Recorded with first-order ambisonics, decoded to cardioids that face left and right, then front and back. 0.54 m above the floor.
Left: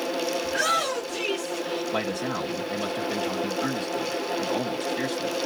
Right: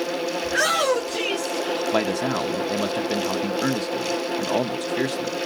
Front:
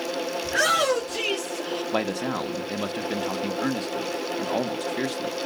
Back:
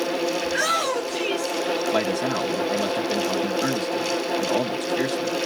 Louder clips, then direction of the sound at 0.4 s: Right 5 dB, front 4 dB; 60° right.